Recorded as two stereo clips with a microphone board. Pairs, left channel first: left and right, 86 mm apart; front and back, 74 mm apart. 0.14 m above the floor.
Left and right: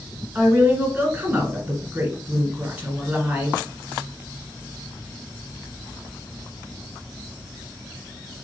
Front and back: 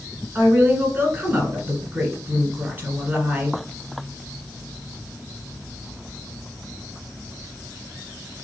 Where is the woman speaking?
140° right, 1.6 m.